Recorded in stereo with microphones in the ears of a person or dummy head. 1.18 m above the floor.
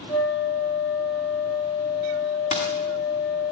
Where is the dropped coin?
35° left (ahead or behind), 1.4 m.